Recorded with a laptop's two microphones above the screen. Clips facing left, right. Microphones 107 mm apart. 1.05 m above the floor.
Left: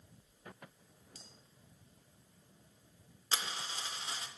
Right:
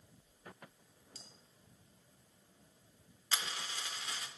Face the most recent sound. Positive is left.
turn(degrees=30)  # may be behind; listen again after turning